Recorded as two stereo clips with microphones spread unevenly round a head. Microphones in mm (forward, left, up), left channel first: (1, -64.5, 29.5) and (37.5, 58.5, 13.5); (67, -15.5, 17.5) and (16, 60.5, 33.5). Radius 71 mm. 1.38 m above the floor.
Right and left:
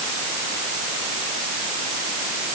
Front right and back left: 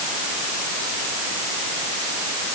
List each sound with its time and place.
Only background noise.